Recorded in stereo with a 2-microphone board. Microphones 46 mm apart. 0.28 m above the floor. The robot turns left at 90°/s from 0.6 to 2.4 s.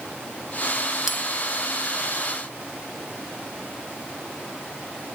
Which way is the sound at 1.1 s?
15° right (ahead or behind).